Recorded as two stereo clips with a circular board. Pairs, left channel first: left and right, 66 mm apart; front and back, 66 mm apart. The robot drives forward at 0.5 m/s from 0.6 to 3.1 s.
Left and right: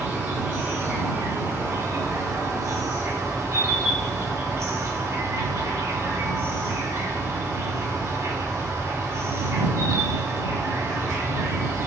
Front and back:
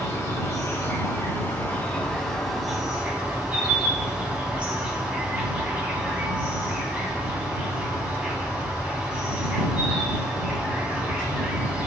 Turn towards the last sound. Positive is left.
turn(degrees=-110)